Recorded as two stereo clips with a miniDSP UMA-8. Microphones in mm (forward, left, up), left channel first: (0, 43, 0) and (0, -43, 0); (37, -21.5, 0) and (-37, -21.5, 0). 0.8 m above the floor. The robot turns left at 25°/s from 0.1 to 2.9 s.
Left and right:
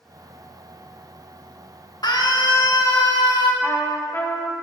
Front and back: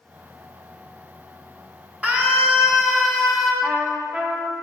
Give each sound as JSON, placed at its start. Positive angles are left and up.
{"t": 2.0, "sound": "a scream", "azimuth_deg": 115, "distance_m": 1.2}
{"t": 3.6, "sound": "a trumpet", "azimuth_deg": 115, "distance_m": 0.8}